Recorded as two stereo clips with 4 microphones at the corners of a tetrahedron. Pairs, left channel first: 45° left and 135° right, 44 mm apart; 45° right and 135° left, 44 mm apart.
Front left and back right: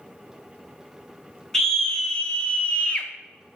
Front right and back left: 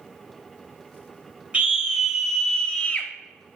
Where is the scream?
120° left, 0.9 m; by 3.1 s straight ahead, 1.1 m.